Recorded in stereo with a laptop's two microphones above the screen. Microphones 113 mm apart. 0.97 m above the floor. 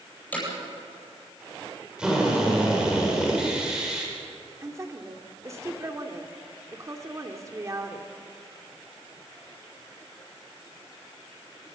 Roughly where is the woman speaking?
Right.